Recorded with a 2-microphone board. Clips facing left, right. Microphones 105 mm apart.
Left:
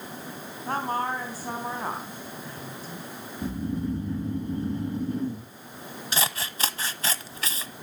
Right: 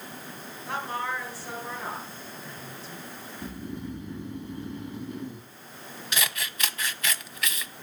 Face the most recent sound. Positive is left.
turn(degrees=30)  # may be behind; listen again after turning